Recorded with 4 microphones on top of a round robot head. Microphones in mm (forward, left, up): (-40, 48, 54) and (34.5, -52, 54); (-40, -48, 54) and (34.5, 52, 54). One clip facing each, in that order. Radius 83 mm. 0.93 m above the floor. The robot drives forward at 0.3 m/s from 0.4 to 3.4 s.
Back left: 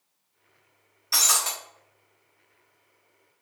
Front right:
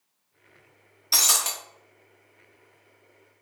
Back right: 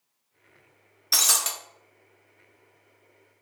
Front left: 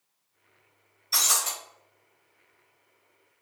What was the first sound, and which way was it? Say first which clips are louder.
Breaking glass: back left 1 dB, even; 115° right.